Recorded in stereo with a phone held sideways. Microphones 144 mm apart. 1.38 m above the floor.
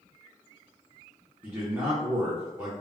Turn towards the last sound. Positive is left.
turn(degrees=-15)  # may be behind; listen again after turning